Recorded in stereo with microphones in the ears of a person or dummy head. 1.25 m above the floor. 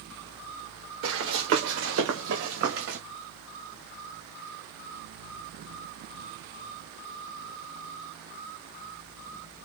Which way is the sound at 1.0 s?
75° right (ahead or behind).